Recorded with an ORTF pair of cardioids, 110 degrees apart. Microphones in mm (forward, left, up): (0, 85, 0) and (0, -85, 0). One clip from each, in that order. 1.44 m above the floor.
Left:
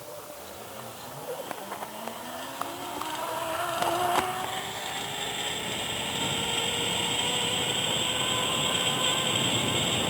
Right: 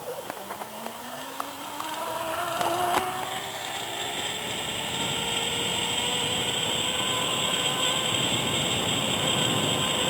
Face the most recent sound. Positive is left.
No sound to turn to.